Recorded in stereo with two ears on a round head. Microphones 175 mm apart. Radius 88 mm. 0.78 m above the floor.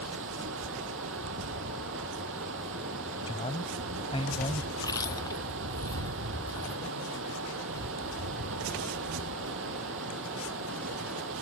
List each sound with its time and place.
0.0 s running water: 70° right (ahead or behind)
3.3 s a man speaking: 25° left (ahead or behind)
4.8 s chewing: 20° left (ahead or behind)